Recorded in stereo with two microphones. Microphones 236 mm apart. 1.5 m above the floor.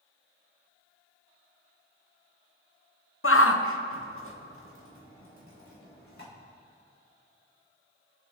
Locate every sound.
3.2 s a shout: 65° left (ahead or behind), 0.7 m